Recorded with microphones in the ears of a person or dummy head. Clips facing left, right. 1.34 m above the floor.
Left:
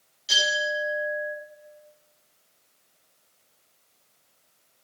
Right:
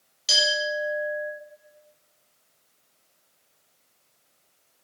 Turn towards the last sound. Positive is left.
turn(degrees=-75)  # may be behind; listen again after turning